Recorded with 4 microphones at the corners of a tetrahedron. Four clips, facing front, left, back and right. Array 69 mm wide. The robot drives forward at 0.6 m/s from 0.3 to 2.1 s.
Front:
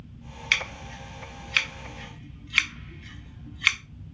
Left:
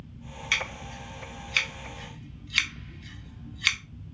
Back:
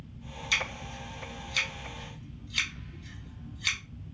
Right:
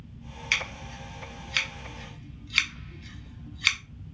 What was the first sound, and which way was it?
Scissors, straight ahead.